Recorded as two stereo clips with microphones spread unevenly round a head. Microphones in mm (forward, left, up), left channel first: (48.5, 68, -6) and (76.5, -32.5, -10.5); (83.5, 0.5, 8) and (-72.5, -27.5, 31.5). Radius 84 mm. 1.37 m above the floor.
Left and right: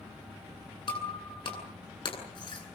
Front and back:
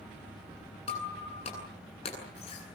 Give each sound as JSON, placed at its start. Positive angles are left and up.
{"t": 0.9, "sound": "breaking glass", "azimuth_deg": 65, "distance_m": 9.5}